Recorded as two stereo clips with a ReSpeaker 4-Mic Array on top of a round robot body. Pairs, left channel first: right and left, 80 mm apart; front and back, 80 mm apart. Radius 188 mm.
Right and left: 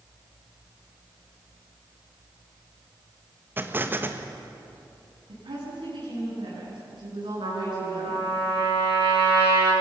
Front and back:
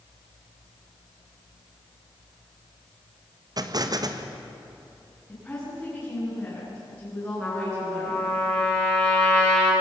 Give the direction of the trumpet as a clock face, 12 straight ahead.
9 o'clock.